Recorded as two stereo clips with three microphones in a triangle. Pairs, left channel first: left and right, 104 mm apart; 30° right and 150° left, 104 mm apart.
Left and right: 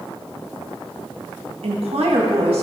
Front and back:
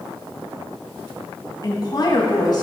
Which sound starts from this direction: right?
A woman speaking, at 1.6 s.